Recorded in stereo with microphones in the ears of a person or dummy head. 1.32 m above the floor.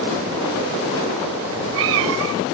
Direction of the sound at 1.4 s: 65° right (ahead or behind).